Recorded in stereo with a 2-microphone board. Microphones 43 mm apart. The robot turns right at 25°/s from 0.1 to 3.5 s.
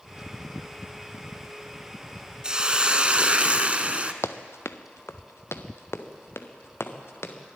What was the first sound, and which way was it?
A hiss, 20° right (ahead or behind).